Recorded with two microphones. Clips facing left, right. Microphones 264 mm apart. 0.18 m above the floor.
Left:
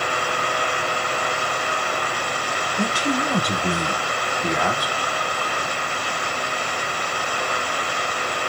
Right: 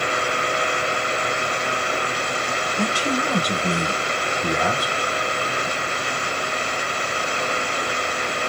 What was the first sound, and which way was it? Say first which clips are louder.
A man speaking: left 1 dB; 20° left (ahead or behind).